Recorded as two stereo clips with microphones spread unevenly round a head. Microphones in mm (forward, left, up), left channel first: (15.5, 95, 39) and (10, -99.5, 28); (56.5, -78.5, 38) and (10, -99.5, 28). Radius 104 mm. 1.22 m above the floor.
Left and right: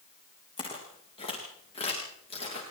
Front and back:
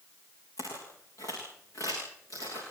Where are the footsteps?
25° left, 8 m; by 2.6 s 30° left, 9 m.